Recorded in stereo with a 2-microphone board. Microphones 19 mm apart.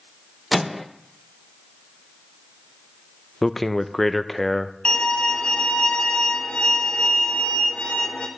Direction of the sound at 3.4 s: 10° left (ahead or behind).